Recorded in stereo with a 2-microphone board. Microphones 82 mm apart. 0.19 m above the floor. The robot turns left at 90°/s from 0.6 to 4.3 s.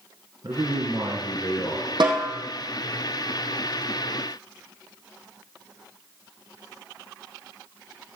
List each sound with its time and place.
0.4 s a man speaking: 85° right, 2 m; by 1.9 s 155° left, 2 m
2.0 s a snare drum: 70° right (ahead or behind), 3.5 m; by 2.3 s 50° right (ahead or behind), 3.5 m